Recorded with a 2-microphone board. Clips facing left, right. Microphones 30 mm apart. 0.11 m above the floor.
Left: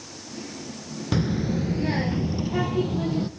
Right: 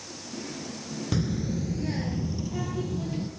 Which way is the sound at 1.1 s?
20° left (ahead or behind).